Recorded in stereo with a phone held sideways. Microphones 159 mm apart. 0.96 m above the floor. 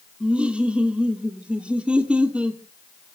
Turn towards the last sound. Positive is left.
turn(degrees=-5)  # may be behind; listen again after turning